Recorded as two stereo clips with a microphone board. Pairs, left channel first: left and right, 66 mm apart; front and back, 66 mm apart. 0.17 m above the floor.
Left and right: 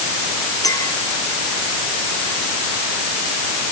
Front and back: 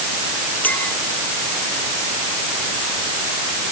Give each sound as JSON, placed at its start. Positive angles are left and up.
{"t": 0.6, "sound": "a clink", "azimuth_deg": 65}